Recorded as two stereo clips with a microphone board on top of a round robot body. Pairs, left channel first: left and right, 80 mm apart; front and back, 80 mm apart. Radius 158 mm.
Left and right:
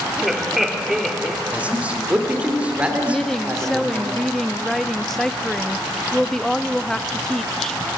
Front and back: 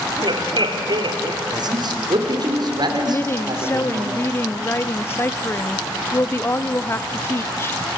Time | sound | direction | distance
0.2 | laughter | 175° right | 2 m
1.5 | a man speaking | 165° right | 2.5 m
3.1 | a woman speaking | 10° left | 0.8 m